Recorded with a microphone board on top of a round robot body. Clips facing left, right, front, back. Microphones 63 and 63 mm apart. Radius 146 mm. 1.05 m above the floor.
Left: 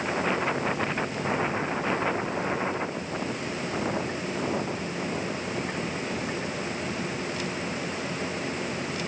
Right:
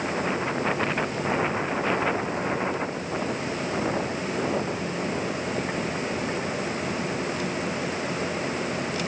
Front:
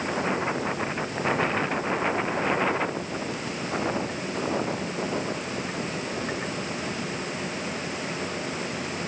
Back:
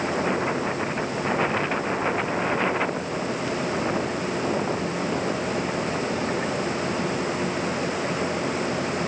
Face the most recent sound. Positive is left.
No sound to turn to.